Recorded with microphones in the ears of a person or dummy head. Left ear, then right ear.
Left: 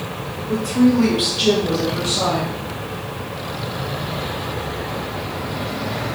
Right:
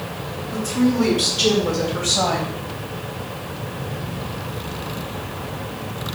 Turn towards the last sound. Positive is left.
turn(degrees=-40)  # may be behind; listen again after turning